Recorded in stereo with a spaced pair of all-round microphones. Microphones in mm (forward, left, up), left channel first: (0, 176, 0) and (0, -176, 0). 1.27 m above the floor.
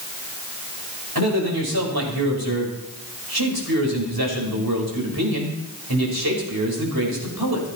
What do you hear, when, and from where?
1.1 s a man speaking: 85° right, 5 m